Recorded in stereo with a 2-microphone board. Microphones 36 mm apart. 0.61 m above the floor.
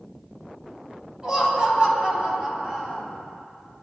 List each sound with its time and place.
1.2 s laughter: 25° right (ahead or behind), 4.5 m; by 3.0 s 35° right (ahead or behind), 4.5 m